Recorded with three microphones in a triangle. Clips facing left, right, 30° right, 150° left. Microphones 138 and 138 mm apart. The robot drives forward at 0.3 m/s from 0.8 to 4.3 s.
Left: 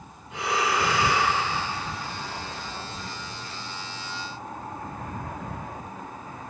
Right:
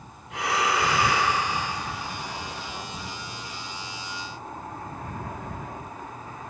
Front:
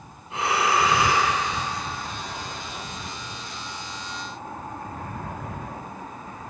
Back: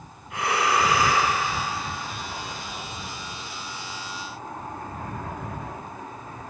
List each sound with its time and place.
0.3 s breathing: 95° right, 1.0 m; by 1.3 s 100° right, 1.1 m